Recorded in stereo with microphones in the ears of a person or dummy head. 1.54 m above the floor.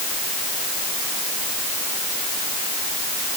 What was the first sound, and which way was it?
Only background noise.